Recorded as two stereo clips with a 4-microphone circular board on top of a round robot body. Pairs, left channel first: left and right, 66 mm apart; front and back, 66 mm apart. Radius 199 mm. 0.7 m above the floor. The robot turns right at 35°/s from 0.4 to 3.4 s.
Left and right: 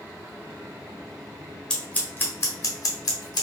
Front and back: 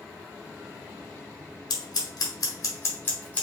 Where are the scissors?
10° left, 0.8 m; by 3.4 s 70° left, 0.8 m.